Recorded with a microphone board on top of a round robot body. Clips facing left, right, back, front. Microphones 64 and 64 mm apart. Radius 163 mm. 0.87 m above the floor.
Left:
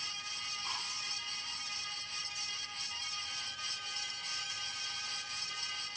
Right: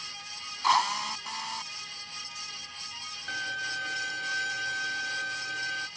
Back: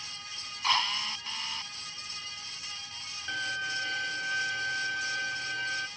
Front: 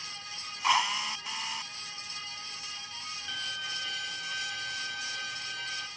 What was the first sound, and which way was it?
A drill, 80° right.